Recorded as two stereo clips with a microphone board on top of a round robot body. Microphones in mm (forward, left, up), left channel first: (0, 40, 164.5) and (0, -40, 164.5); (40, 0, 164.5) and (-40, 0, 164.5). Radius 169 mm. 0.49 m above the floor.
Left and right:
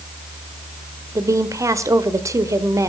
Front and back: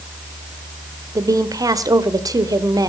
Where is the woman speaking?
140° right, 1.9 m.